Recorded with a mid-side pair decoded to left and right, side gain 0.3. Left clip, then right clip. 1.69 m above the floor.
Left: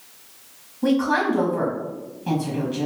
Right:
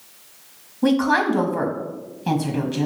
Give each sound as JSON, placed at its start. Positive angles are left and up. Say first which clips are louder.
{"t": 0.8, "sound": "a woman speaking", "louder": "right 2 dB", "azimuth_deg": -60, "distance_m": 0.9}